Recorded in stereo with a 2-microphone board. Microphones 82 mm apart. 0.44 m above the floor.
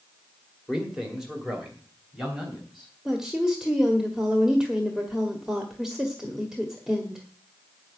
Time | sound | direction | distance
0.7 | a man speaking | 5° right (ahead or behind) | 2 m
3.0 | a woman speaking | 5° right (ahead or behind) | 1.5 m